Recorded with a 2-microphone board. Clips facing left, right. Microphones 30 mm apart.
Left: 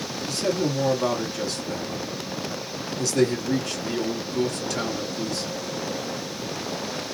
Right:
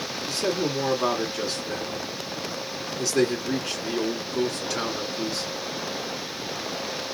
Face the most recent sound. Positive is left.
turn(degrees=-20)  # may be behind; listen again after turning